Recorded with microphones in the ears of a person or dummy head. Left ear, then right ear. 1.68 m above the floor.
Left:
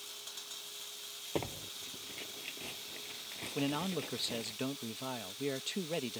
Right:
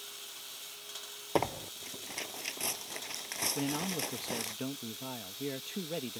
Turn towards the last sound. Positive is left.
turn(degrees=20)  # may be behind; listen again after turning